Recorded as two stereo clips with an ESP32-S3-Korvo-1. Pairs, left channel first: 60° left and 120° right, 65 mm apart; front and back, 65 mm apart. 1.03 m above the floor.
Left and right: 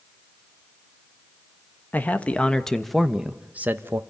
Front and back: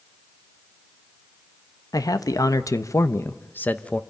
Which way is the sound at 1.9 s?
Straight ahead.